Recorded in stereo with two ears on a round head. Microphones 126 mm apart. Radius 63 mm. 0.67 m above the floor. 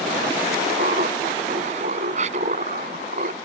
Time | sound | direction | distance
0.8 | laughter | 50° right (ahead or behind) | ?